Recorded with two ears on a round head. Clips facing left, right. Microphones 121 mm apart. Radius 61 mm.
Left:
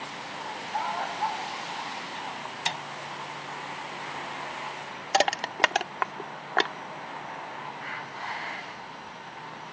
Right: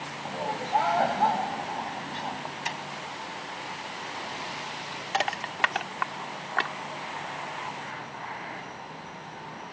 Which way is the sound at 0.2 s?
75° right (ahead or behind).